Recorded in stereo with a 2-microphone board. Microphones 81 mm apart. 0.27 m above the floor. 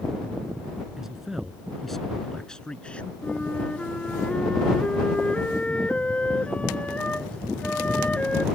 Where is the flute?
15° left (ahead or behind).